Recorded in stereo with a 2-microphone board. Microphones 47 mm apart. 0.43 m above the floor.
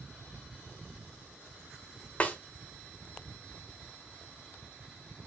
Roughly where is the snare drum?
Left.